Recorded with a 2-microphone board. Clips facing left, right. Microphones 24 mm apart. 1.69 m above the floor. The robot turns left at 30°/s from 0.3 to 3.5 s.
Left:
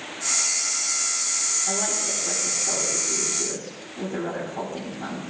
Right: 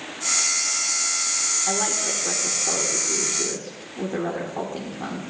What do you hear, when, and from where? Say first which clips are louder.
1.7 s a woman speaking: right 2 dB; 75° right, 1.9 m; by 5.2 s 130° right, 1.9 m